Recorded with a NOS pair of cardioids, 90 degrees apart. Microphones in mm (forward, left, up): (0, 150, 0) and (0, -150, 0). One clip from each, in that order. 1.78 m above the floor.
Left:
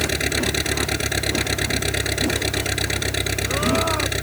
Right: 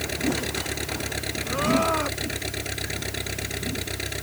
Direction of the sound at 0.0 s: 50° left.